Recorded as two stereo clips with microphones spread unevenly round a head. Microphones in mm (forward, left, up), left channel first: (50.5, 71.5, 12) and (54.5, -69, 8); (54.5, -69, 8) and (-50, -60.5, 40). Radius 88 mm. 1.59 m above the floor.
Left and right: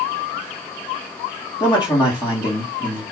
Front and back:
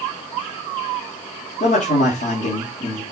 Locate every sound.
1.6 s a man speaking: 30° left, 2.5 m